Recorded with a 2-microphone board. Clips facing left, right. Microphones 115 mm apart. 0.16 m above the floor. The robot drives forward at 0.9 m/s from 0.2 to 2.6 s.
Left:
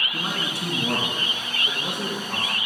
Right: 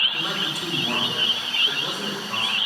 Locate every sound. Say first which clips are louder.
0.1 s a man speaking: left 2 dB; 35° left (ahead or behind), 1.8 m; by 2.5 s 20° left (ahead or behind), 3 m